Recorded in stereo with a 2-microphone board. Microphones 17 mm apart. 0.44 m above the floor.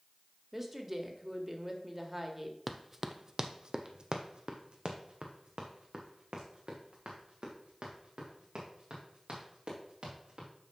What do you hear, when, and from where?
0.5 s a woman speaking: 25° right (ahead or behind), 1.4 m
2.7 s running footsteps: centre (ahead or behind), 0.7 m; by 10.5 s 85° right, 4.5 m